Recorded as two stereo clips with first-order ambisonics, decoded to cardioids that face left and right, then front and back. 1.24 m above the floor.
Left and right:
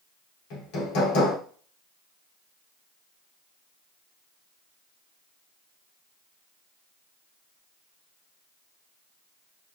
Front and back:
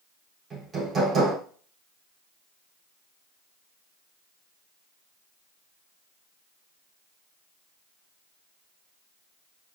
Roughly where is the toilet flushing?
I don't hear a toilet flushing.